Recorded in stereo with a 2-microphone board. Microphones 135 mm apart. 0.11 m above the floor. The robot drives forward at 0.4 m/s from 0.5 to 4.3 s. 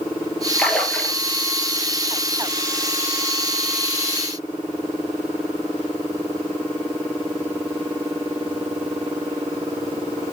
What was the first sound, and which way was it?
A splash, 5° left (ahead or behind).